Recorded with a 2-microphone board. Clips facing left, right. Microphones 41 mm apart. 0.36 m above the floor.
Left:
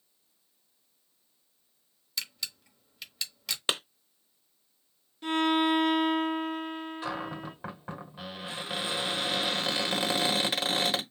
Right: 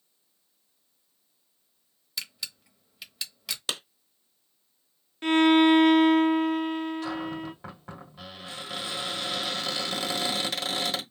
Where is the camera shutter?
5° right (ahead or behind), 1.0 m.